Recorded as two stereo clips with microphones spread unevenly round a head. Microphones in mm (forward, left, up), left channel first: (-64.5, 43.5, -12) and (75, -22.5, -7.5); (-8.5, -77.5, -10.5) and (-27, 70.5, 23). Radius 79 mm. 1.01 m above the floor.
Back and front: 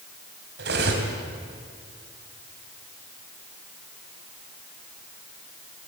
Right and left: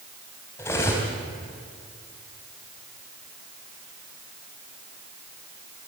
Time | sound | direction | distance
0.6 | cutlery clinking | 5° right | 4 m